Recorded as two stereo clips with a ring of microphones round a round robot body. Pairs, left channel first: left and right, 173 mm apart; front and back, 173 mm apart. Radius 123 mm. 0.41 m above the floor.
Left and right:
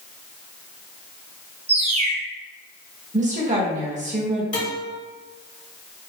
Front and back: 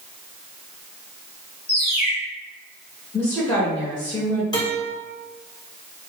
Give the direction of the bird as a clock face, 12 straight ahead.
2 o'clock.